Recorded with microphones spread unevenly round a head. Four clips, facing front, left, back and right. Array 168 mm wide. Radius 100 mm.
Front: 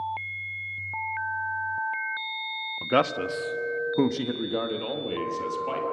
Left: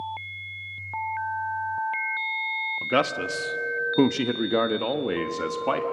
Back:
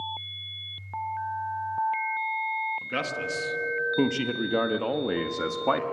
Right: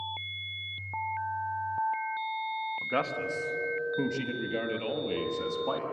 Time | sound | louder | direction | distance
2.8 | a man speaking | left 9 dB, front 7 dB | 55° left | 1.2 m